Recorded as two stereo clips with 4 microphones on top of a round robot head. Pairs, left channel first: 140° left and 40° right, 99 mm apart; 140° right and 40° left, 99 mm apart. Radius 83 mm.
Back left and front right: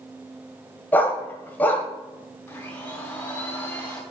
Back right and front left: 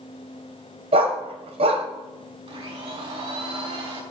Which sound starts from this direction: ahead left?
A blender, at 2.5 s.